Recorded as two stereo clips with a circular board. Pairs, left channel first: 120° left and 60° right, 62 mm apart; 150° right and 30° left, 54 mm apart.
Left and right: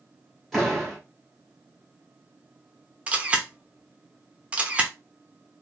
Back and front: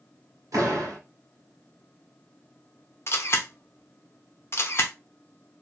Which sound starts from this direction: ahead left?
A door slam, at 0.5 s.